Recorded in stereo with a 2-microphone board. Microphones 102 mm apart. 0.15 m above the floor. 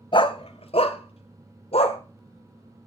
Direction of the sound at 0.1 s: 55° left (ahead or behind).